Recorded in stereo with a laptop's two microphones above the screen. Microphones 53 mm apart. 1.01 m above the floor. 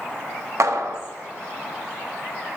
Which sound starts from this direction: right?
A clap, at 0.6 s.